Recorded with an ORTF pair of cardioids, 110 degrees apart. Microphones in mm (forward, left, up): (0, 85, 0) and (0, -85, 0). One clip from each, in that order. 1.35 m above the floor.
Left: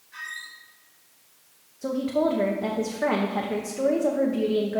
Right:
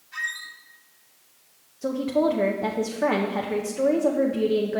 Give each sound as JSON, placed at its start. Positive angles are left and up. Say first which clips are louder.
{"t": 0.1, "sound": "a squeak", "louder": "right 6 dB", "azimuth_deg": -45, "distance_m": 1.4}
{"t": 1.8, "sound": "a woman speaking", "louder": "right 1 dB", "azimuth_deg": -10, "distance_m": 0.6}